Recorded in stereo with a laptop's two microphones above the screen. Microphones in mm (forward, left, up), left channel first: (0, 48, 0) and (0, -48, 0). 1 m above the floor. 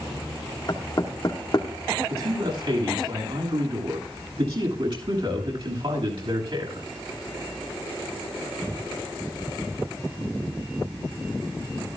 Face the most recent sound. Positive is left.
turn(degrees=-65)  # may be behind; listen again after turning